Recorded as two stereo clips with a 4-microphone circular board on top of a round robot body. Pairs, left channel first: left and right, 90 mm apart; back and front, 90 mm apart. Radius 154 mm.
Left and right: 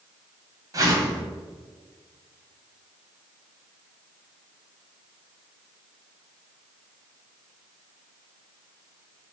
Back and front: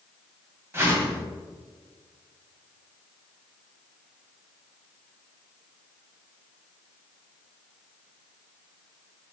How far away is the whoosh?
About 1.5 m.